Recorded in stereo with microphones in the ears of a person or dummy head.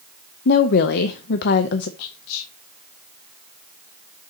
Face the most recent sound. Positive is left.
turn(degrees=80)